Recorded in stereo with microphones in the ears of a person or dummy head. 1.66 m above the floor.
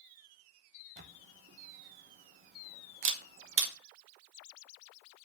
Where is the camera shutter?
50° right (ahead or behind), 1.0 m.